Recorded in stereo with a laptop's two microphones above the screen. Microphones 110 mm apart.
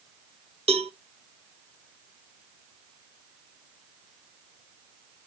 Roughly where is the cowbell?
Right.